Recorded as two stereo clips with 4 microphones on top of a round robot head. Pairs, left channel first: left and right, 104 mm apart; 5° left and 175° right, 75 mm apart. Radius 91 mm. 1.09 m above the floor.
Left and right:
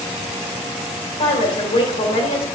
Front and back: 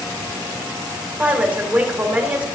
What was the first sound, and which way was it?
A woman speaking, 110° left.